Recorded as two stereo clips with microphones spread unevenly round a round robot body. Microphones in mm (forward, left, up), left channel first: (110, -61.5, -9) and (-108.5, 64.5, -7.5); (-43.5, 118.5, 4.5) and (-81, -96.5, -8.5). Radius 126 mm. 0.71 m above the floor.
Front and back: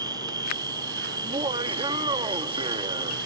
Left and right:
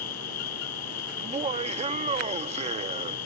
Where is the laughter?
145° right.